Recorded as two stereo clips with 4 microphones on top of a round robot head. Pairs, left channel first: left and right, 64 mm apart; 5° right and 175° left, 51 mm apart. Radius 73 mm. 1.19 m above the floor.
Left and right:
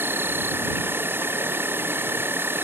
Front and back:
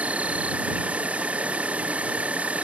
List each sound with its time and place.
0.0 s an insect: 130° right